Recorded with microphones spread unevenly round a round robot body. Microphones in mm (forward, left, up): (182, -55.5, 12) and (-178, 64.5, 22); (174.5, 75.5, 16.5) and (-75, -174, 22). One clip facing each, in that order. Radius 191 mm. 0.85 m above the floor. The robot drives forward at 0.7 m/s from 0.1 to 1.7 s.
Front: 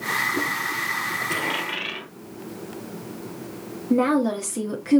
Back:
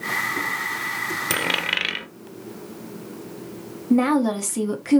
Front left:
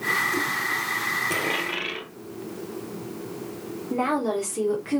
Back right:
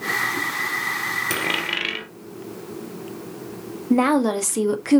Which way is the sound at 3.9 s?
130° right.